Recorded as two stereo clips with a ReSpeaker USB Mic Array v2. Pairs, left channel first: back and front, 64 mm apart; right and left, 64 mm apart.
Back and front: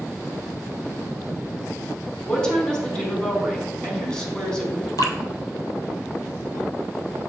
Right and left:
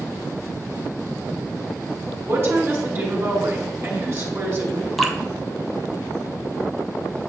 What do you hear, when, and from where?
2.3 s a woman speaking: 110° left, 1.6 m
5.0 s dripping: straight behind, 0.7 m